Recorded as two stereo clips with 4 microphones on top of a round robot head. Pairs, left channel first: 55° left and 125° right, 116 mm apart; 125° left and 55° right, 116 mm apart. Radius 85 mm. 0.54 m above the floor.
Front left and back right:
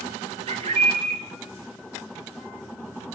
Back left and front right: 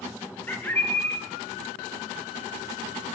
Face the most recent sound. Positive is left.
turn(degrees=-155)